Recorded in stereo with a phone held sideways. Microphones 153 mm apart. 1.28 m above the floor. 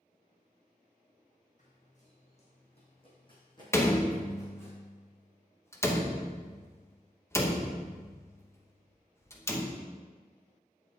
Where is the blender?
I don't hear a blender.